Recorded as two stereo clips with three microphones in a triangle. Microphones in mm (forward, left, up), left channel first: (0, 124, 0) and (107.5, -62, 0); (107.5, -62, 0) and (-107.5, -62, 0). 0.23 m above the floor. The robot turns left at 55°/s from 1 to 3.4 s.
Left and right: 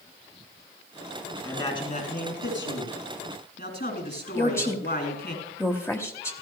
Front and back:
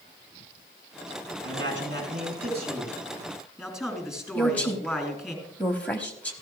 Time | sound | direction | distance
1.4 | a man speaking | 160° right | 3 m
4.3 | a woman speaking | 70° left | 0.9 m